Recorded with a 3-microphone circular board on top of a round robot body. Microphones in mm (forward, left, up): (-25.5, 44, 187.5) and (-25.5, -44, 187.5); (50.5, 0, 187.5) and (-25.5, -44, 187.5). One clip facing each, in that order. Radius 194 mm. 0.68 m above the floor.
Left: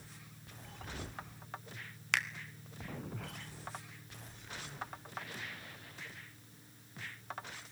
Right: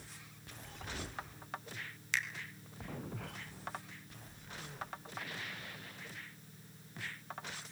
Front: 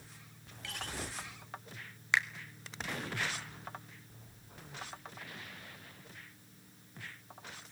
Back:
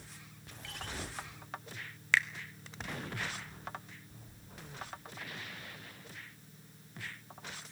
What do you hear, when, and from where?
2.1 s a finger snap: 100° left, 1.8 m